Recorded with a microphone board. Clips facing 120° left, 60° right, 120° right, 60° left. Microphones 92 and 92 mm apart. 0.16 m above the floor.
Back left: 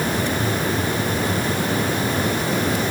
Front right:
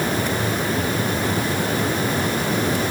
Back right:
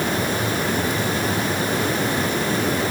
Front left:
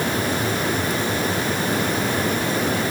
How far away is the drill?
I don't hear a drill.